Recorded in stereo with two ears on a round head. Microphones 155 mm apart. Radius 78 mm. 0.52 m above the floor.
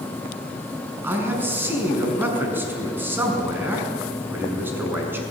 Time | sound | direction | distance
1.0 | a man speaking | 10° right (ahead or behind) | 6 m